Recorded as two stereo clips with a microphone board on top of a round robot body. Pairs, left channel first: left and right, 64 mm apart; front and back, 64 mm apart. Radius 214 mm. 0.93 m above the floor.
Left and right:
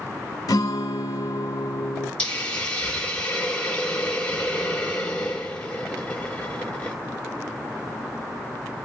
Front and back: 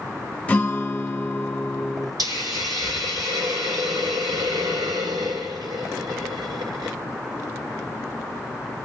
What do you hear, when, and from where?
0.5 s a guitar: 70° left, 1.1 m
2.2 s a hiss: 160° left, 0.7 m